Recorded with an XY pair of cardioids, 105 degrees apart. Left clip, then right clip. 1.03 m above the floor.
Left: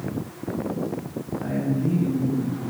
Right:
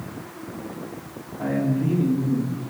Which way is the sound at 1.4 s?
65° right.